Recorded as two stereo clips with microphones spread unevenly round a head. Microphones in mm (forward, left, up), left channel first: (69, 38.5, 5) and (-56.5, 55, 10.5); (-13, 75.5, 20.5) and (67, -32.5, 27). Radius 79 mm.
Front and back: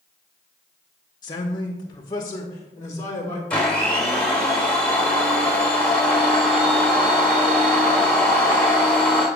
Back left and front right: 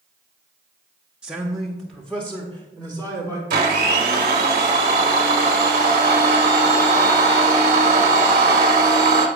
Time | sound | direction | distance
1.2 | a man speaking | 30° left | 0.8 m
3.5 | a blender | 90° right | 1.4 m